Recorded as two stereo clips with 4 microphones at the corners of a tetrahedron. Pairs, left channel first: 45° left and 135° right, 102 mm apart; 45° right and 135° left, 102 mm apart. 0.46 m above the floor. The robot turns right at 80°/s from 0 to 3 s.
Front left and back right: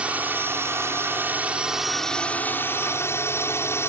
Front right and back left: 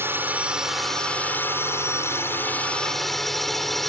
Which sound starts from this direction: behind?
A drone, at 0.0 s.